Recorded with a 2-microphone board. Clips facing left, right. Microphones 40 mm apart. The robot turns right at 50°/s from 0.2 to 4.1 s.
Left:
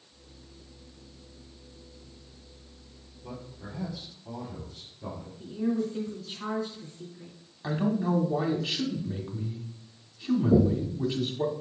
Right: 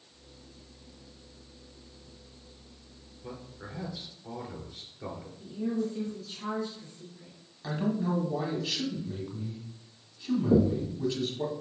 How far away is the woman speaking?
About 2.5 m.